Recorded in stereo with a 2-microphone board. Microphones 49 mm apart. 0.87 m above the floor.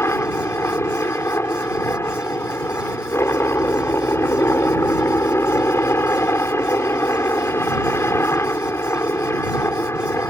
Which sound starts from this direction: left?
A helicopter, at 0.0 s.